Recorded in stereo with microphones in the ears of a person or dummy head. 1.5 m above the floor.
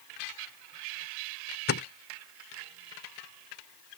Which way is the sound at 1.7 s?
55° left (ahead or behind).